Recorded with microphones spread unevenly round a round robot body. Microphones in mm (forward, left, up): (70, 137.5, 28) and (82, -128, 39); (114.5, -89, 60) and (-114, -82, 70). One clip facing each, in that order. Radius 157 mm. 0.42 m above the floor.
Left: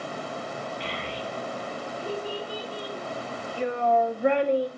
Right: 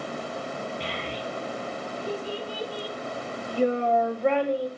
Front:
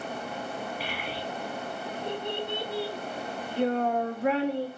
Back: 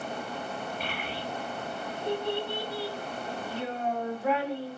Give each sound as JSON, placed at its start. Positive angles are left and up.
{"t": 0.8, "sound": "a child speaking", "azimuth_deg": -85, "distance_m": 2.0}